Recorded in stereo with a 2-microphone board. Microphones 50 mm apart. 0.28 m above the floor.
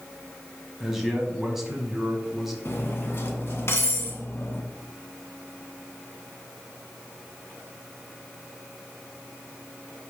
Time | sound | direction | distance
0.8 | a man speaking | 5° right (ahead or behind) | 1.6 m
2.6 | cutlery clinking | 50° left (ahead or behind) | 1.4 m